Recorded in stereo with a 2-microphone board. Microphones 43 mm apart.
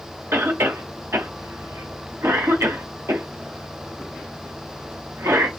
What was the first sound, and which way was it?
A cough, 75° right (ahead or behind).